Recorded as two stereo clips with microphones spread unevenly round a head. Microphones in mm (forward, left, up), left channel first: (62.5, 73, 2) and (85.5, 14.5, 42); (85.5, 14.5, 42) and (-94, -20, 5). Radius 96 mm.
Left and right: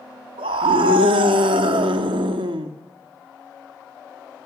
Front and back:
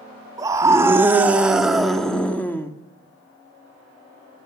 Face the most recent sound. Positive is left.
turn(degrees=-70)